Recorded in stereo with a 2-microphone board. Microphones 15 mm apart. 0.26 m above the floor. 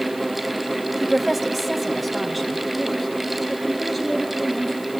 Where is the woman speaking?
5° right (ahead or behind), 1.0 m; by 4.9 s centre (ahead or behind), 4.5 m.